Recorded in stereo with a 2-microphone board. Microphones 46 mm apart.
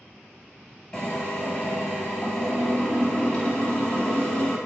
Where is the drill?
15° left (ahead or behind), 1.3 m.